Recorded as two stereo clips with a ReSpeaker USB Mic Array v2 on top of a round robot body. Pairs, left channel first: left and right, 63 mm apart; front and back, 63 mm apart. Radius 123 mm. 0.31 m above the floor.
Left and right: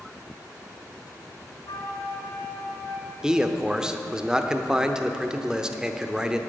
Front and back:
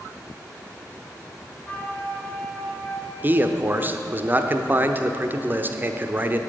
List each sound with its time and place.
1.7 s a flute: 70° left, 2.5 m
3.2 s a man speaking: 160° right, 1.1 m